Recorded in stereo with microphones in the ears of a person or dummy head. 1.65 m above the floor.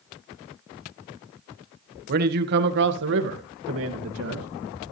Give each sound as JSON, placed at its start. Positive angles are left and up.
{"t": 2.1, "sound": "a man speaking", "side_deg": -50, "distance_m": 1.6}